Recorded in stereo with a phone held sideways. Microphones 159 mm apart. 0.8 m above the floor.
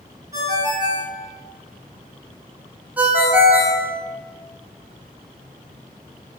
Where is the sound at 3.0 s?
10° right (ahead or behind), 0.6 m.